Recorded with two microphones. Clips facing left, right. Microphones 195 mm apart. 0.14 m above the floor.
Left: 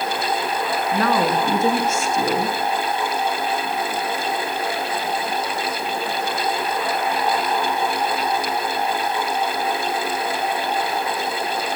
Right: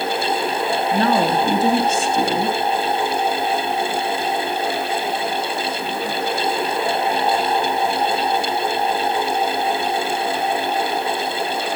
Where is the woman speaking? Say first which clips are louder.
Right 1 dB; 35° right (ahead or behind), 1.3 m.